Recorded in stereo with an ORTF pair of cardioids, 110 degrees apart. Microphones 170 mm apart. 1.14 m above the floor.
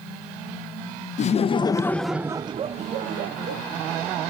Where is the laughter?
45° left, 0.8 m; by 3.6 s 65° right, 1.0 m.